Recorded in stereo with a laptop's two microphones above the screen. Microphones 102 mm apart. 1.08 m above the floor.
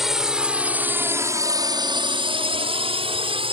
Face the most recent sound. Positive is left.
turn(degrees=-60)  # may be behind; listen again after turning